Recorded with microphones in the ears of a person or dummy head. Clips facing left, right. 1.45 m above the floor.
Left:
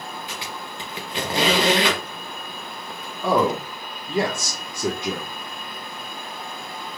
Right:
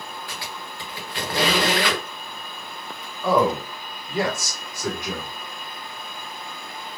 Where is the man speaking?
25° left (ahead or behind), 1.0 m.